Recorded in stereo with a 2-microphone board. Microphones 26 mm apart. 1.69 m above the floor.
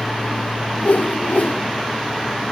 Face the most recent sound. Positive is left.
turn(degrees=70)  # may be behind; listen again after turning